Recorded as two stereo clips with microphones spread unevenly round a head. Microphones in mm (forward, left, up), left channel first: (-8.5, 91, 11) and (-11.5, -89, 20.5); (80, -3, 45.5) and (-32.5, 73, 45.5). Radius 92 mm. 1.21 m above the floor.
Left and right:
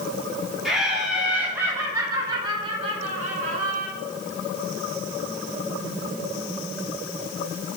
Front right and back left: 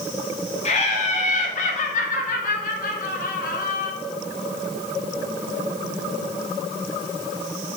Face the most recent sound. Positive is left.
turn(degrees=-50)